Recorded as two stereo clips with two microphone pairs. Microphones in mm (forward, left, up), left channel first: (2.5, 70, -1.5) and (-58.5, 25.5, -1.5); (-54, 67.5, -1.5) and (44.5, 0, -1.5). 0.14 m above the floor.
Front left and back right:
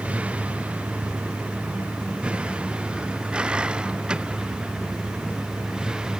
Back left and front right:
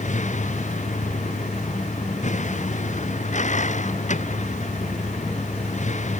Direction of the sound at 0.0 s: 145° left.